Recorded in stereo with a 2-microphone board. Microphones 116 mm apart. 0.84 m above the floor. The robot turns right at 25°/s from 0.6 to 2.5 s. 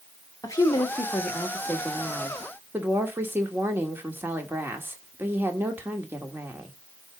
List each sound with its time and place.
0.4 s a woman speaking: 150° left, 1.7 m; by 6.7 s 160° right, 1.7 m